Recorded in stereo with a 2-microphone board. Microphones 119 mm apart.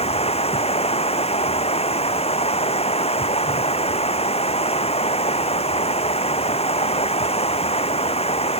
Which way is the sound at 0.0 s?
55° left (ahead or behind).